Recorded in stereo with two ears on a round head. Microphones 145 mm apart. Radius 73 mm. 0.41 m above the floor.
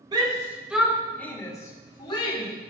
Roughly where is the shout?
Right.